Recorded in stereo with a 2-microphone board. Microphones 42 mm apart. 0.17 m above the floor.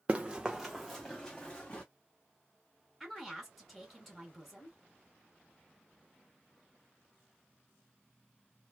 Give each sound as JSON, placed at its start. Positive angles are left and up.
{"t": 0.1, "sound": "running footsteps", "side_deg": -30, "distance_m": 0.8}
{"t": 3.0, "sound": "a woman speaking", "side_deg": 0, "distance_m": 1.7}